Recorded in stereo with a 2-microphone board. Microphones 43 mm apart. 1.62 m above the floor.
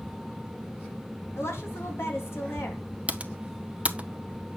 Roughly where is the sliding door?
I don't hear a sliding door.